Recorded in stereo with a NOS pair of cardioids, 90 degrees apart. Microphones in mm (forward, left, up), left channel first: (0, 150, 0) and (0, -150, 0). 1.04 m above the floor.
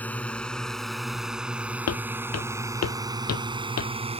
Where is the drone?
5° left; by 4.2 s 20° right.